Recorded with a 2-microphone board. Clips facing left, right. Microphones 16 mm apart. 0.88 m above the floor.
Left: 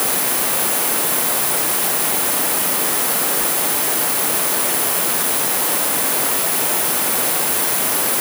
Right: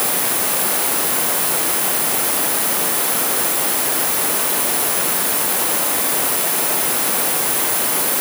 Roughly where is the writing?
I don't hear writing.